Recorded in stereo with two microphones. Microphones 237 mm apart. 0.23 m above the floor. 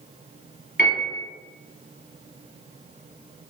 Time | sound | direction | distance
0.8 | a piano | 45° left (ahead or behind) | 1.2 m